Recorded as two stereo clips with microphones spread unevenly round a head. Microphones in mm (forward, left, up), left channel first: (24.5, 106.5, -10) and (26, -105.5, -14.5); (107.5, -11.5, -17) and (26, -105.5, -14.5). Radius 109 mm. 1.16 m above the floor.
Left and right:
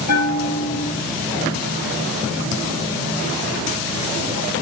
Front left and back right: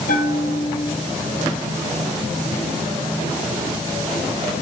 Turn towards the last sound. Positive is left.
turn(degrees=90)